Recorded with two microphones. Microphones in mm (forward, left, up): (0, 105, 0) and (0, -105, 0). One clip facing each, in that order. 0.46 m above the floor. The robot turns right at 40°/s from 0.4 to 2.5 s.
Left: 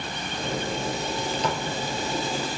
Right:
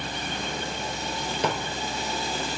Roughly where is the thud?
Right.